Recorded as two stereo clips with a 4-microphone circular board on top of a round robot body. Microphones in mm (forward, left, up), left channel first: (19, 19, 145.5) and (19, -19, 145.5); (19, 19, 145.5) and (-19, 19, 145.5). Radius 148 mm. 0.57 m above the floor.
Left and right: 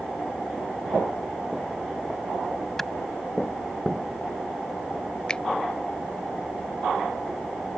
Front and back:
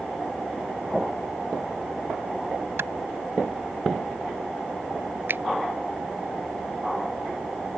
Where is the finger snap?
160° left.